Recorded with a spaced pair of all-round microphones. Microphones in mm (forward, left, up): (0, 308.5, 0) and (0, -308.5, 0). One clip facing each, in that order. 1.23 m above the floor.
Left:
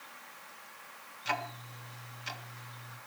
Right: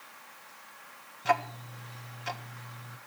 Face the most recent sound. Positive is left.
turn(degrees=-70)  # may be behind; listen again after turning